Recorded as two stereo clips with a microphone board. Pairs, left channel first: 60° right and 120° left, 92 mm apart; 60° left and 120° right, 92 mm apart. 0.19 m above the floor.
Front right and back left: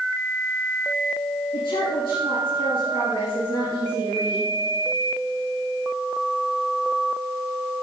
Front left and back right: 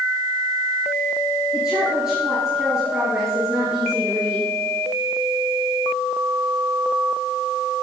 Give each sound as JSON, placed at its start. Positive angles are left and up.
{"t": 1.5, "sound": "a woman speaking", "azimuth_deg": -40, "distance_m": 3.0}